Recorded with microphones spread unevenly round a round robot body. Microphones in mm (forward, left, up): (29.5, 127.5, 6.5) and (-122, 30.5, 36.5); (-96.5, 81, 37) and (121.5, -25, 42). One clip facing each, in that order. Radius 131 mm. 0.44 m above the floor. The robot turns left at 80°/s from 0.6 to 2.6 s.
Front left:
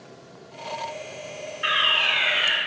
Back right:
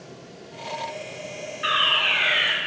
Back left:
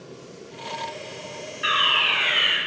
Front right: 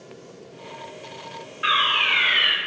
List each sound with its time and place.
1.6 s a fire alarm: 20° left, 1.8 m; by 2.6 s 55° right, 1.8 m